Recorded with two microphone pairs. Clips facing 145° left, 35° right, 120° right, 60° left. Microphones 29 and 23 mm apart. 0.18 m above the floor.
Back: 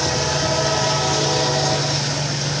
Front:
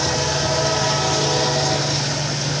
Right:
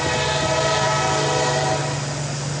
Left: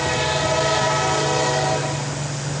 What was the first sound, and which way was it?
Only background noise.